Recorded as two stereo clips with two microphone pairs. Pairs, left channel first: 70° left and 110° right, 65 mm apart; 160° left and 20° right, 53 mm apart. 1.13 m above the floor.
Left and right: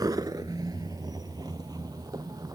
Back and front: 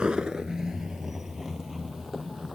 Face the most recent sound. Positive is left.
turn(degrees=-110)